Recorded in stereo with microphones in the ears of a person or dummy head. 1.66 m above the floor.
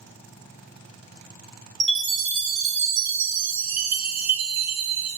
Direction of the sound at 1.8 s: 65° right (ahead or behind).